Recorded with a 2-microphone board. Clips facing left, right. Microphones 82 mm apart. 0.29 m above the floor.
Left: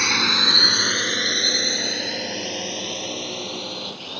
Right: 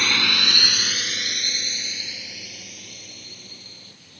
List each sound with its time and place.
0.0 s a drone: 10° left (ahead or behind); by 4.2 s 65° left (ahead or behind)